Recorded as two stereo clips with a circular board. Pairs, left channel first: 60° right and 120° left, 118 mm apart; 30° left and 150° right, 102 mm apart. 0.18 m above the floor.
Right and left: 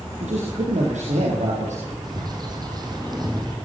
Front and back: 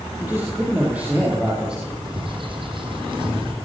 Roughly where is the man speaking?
Behind left.